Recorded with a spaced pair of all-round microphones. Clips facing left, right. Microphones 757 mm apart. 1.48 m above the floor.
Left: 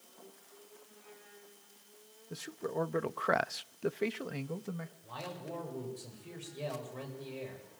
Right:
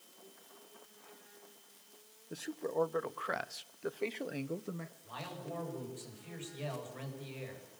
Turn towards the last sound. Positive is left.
turn(degrees=65)  # may be behind; listen again after turning